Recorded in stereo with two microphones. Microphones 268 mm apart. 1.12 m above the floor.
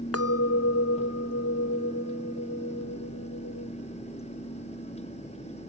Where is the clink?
60° left (ahead or behind), 0.5 m.